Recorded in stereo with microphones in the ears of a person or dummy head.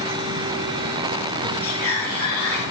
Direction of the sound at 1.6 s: 10° left (ahead or behind).